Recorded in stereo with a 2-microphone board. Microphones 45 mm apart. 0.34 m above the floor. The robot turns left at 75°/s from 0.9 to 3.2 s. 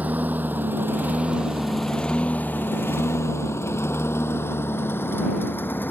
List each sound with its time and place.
0.0 s a lawn mower: 35° right (ahead or behind); by 5.9 s 50° left (ahead or behind)